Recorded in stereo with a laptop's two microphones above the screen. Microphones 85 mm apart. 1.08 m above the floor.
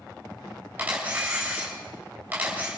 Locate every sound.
0.8 s a camera shutter: 20° right (ahead or behind), 4.5 m